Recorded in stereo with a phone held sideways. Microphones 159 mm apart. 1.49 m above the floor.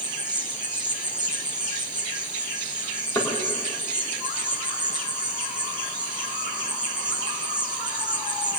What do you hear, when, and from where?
0.0 s an insect: 25° right (ahead or behind), 1.3 m
3.1 s knocking: 20° left (ahead or behind), 3 m